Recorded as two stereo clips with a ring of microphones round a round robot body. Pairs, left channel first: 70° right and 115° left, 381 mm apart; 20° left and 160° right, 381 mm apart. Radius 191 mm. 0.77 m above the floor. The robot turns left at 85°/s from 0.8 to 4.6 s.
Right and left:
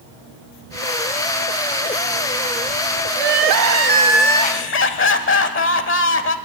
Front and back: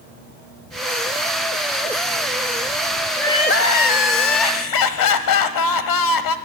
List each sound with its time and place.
3.2 s crying: 110° left, 0.9 m; by 6.4 s 10° right, 0.9 m